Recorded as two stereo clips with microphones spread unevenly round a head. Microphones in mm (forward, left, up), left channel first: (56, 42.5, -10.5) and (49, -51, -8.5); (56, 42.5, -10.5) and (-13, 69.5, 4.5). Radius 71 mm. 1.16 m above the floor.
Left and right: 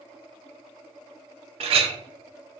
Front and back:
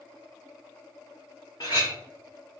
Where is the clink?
90° right, 0.6 m.